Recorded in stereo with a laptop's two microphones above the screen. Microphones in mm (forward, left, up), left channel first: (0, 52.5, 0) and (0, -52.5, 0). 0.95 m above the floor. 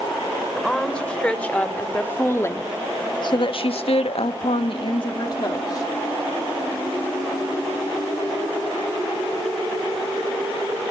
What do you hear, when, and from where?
0.5 s a woman speaking: 5° left (ahead or behind), 4 m; by 5.9 s 40° left (ahead or behind), 2.5 m